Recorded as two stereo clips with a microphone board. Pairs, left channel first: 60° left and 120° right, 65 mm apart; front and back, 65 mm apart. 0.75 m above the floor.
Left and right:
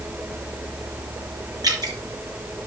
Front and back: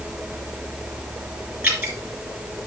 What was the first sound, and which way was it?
Dripping, 120° right.